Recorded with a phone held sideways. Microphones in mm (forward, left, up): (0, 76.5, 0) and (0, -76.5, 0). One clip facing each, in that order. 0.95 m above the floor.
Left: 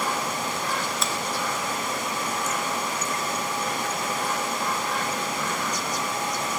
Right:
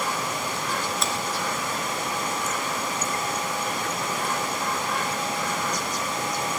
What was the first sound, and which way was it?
A finger snap, centre (ahead or behind).